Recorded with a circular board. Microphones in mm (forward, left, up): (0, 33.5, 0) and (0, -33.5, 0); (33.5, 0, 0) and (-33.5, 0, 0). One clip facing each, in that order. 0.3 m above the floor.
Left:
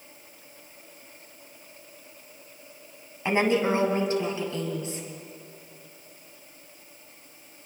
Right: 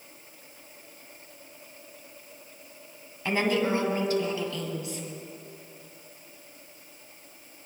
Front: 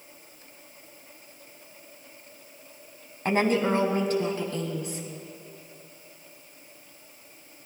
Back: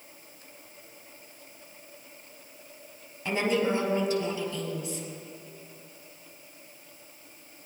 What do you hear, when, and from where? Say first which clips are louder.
3.2 s a woman speaking: left 3 dB, front 3 dB; 25° left, 1.8 m; by 5.0 s 35° left, 3.5 m